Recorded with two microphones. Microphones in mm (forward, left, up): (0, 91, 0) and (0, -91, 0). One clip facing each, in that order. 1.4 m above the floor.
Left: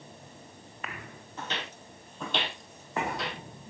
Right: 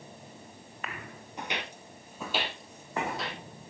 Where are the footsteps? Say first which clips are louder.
Right 1 dB; 15° right (ahead or behind), 1.5 m; by 3.4 s centre (ahead or behind), 3 m.